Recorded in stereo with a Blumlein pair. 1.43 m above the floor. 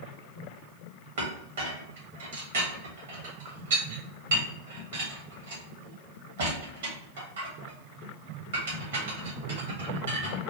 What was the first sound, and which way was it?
A clink, 60° right.